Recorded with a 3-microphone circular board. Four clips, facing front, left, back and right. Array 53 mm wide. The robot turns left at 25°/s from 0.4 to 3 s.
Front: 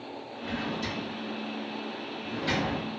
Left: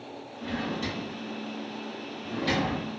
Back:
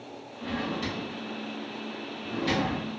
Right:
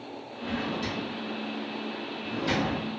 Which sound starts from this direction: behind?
A drawer, at 0.4 s.